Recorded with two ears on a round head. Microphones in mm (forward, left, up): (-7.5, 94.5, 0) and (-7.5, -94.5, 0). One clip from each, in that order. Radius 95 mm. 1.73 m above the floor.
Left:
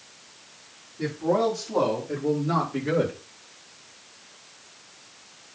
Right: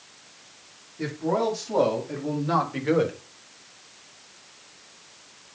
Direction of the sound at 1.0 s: 30° right (ahead or behind).